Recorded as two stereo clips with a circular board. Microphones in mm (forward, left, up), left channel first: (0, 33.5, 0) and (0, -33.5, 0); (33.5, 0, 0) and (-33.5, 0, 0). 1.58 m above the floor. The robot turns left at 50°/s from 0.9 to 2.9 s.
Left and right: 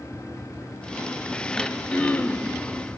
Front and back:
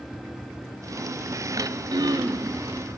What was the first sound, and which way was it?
Throat clearing, 175° right.